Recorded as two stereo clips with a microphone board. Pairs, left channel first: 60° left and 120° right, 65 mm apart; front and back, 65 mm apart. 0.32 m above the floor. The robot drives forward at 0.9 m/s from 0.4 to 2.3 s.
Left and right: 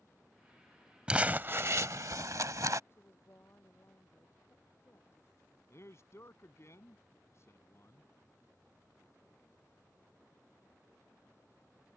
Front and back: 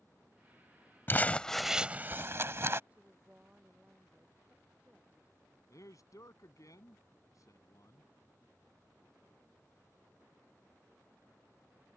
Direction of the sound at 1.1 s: 50° right.